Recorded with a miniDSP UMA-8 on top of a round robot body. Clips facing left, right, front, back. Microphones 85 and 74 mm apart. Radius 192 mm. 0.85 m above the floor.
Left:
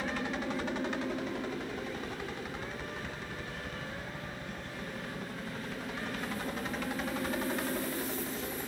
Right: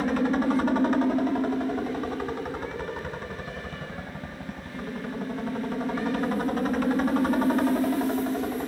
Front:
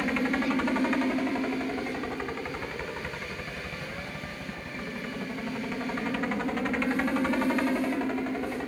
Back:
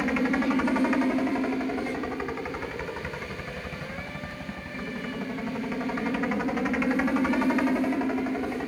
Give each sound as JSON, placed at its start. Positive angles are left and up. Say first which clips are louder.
{"t": 0.0, "sound": "a helicopter", "louder": "right 11 dB, back 2 dB", "azimuth_deg": -100}